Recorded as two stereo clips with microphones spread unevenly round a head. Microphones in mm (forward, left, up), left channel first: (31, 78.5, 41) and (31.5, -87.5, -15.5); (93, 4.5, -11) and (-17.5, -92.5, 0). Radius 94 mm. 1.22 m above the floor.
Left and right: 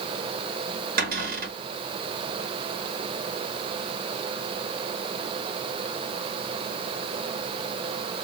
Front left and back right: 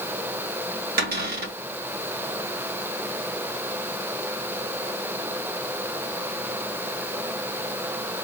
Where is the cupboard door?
120° right, 2 m.